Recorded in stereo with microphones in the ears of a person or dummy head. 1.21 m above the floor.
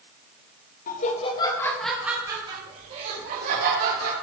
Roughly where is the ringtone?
No ringtone in this recording.